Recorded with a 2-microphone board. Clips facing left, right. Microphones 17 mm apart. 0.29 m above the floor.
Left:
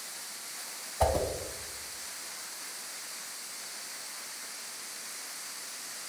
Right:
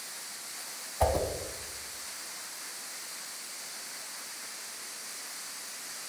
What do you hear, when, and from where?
1.0 s a whoosh: 20° left (ahead or behind), 0.7 m